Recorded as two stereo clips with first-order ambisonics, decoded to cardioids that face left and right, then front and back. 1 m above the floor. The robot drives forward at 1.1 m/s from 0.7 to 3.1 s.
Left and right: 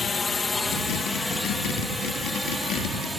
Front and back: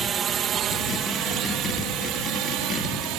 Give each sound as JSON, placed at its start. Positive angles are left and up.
{"t": 0.0, "sound": "a drone", "azimuth_deg": 145}